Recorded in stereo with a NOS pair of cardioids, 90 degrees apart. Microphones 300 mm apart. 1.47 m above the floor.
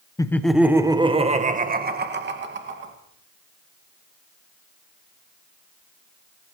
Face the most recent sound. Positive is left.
turn(degrees=-40)